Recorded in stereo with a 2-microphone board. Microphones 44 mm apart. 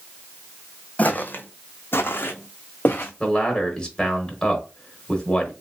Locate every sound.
1.0 s footsteps: 35° left (ahead or behind), 0.6 m; by 3.1 s 40° left (ahead or behind), 1.2 m
3.2 s a man speaking: 20° left (ahead or behind), 1.0 m